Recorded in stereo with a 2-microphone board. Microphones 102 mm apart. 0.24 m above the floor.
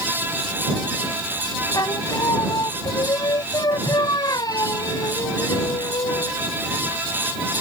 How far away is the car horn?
No car horn in this recording.